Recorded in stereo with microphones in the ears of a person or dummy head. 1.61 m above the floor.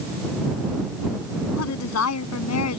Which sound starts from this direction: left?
A woman speaking, at 1.6 s.